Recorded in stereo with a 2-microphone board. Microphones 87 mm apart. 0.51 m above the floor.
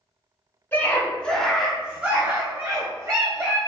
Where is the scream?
20° left (ahead or behind), 1.2 m; by 3.6 s 30° right (ahead or behind), 1.9 m.